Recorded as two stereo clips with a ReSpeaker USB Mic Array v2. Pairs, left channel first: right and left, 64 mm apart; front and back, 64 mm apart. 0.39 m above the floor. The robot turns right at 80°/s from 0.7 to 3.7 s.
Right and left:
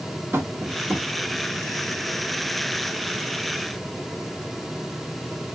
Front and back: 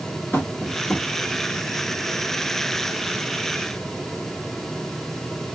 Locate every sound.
0.3 s tapping: 55° left, 0.9 m; by 1.1 s 80° left, 0.9 m